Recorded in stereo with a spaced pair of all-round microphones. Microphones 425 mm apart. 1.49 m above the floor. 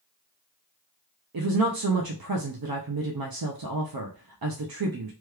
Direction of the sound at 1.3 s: 60° right (ahead or behind).